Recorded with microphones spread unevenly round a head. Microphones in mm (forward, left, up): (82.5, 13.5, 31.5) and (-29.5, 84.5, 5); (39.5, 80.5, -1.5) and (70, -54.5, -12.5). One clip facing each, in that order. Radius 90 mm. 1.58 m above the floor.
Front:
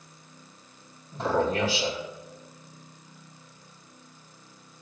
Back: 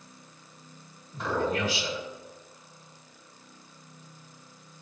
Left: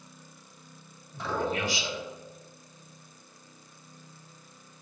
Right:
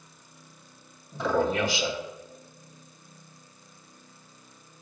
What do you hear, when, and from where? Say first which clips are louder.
1.1 s a man speaking: front 3 dB, right 6 dB; 100° right, 3.5 m